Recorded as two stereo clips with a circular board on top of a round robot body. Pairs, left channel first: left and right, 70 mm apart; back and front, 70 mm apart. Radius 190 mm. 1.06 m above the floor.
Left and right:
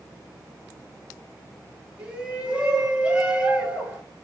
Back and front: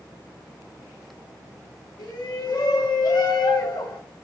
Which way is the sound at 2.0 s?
165° right.